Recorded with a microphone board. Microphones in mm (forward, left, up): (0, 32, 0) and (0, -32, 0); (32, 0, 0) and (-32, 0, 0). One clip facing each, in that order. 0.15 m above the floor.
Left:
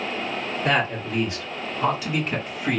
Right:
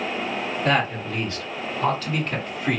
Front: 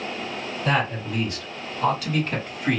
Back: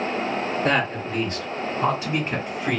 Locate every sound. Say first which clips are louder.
0.7 s a man speaking: even, front 1 dB; 160° left, 2.5 m; by 2.8 s 60° left, 1.2 m